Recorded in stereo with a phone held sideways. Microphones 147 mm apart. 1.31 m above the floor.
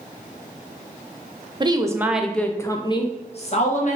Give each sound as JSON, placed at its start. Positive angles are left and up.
{"t": 1.6, "sound": "a woman speaking", "side_deg": -30, "distance_m": 0.6}